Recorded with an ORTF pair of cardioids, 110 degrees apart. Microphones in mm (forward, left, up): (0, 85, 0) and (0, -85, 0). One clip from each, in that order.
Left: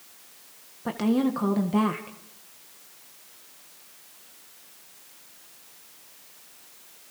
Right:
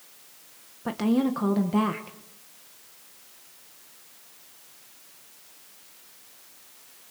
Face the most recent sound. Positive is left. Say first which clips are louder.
# even
turn(degrees=-5)